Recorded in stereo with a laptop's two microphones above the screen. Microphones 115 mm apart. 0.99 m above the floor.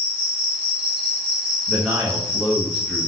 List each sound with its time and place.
0.0 s an insect: 15° right (ahead or behind), 2 m
1.7 s a man speaking: 5° right (ahead or behind), 1.2 m